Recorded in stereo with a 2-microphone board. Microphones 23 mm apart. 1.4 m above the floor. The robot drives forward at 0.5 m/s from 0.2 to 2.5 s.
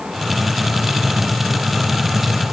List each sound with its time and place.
Only background noise.